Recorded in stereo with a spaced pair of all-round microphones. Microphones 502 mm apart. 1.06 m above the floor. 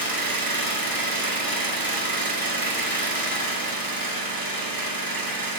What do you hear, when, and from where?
0.0 s an engine running: 40° right (ahead or behind), 1.0 m